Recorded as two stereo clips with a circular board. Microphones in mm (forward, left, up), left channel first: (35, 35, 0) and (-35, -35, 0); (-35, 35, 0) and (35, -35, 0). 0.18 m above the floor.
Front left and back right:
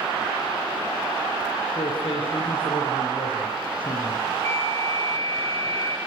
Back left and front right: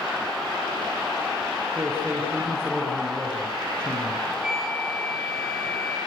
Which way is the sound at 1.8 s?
20° left.